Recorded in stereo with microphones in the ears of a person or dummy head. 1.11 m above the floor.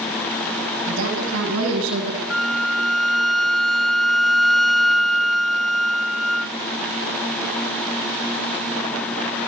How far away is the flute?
About 0.8 m.